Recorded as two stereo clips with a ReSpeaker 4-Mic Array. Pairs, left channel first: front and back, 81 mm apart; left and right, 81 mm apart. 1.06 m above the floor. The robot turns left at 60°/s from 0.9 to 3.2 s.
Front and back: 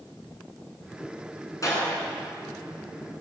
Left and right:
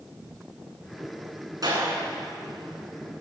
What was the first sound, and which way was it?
A clap, 50° right.